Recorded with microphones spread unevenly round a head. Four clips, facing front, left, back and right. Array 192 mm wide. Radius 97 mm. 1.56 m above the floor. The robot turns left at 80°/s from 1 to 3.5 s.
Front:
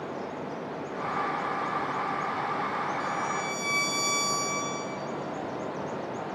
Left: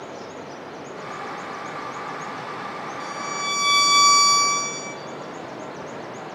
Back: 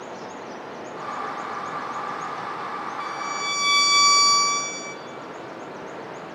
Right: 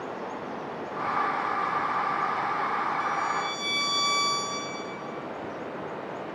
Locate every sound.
0.0 s running water: 135° right, 9.5 m; by 6.3 s 25° left, 9.5 m
3.0 s a violin: 170° left, 1.3 m; by 5.0 s 130° left, 1.3 m